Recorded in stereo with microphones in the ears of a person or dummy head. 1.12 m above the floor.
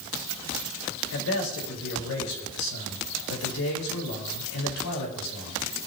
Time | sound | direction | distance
1.1 | a man speaking | 85° left | 5 m